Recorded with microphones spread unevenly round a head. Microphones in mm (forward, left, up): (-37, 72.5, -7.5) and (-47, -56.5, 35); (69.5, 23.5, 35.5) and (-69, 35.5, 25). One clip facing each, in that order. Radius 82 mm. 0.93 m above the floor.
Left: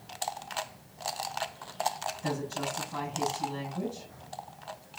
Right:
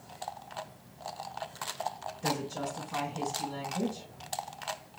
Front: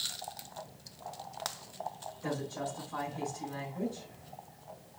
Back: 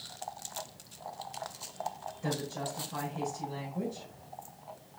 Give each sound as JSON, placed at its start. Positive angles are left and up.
{"t": 2.2, "sound": "a woman speaking", "azimuth_deg": -115, "distance_m": 5.0}